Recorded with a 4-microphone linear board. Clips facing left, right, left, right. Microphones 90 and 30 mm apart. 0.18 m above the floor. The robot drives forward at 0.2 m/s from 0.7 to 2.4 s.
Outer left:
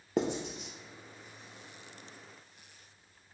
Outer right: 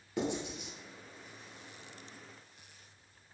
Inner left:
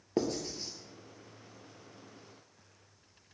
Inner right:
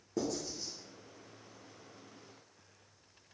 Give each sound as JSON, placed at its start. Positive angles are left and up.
{"t": 0.2, "sound": "writing", "side_deg": 55, "distance_m": 0.5}